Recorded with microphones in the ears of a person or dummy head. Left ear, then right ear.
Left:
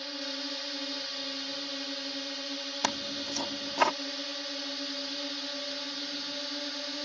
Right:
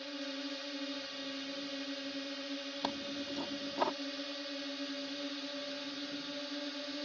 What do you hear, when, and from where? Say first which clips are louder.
0.0 s a drone: left 6 dB; 25° left (ahead or behind)
2.8 s tearing paper: left 8 dB; 70° left (ahead or behind)